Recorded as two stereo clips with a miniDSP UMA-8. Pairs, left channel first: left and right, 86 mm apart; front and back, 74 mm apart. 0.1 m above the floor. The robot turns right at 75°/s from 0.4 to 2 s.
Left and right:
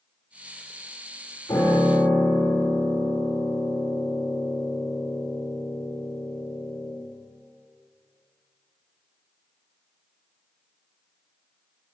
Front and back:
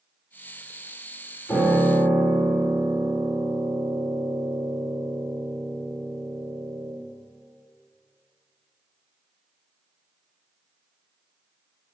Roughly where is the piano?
Ahead left.